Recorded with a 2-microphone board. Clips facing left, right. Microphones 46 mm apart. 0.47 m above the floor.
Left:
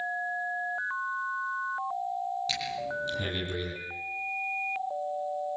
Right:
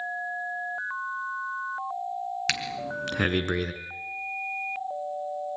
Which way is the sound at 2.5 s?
65° right (ahead or behind).